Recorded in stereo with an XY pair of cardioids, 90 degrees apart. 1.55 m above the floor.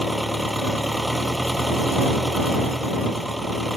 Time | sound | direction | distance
0.0 | an engine running | 5° right | ?